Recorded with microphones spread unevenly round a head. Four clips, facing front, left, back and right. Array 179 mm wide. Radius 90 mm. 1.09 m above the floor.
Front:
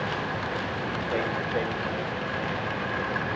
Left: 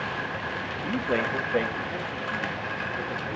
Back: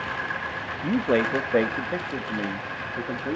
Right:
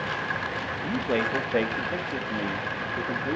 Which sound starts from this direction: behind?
A man speaking, at 0.8 s.